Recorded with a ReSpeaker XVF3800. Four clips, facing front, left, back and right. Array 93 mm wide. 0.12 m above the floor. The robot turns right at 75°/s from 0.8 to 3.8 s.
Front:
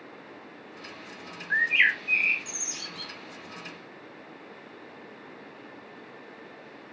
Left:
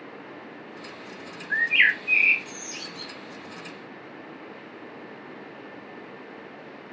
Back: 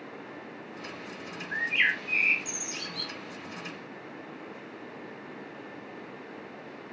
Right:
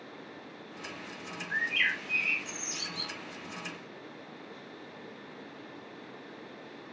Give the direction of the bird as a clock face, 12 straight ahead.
11 o'clock.